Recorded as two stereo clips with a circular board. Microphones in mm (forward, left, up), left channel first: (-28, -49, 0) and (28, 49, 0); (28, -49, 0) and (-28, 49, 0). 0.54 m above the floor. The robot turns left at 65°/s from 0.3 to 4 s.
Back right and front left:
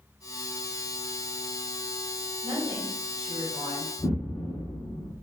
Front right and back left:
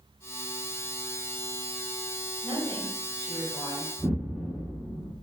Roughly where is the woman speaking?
Behind left.